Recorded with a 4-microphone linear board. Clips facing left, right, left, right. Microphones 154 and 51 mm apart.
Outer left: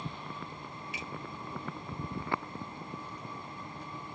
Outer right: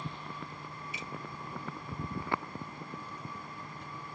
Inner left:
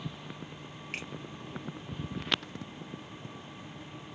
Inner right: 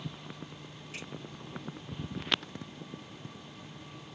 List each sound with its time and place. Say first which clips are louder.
0.9 s a finger snap: outer left 2 dB, inner left 5 dB; 65° left (ahead or behind), 3.5 m